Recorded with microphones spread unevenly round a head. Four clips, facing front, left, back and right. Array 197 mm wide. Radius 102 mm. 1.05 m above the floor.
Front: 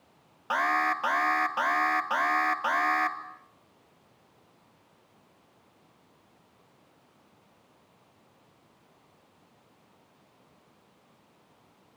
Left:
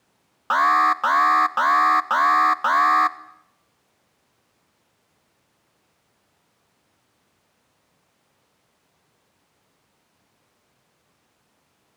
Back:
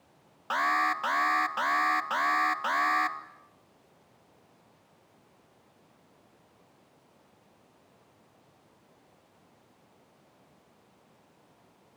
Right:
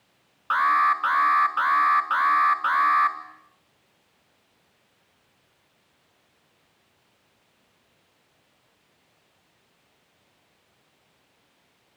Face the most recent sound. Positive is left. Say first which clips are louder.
# left 3 dB, front 1 dB
turn(degrees=65)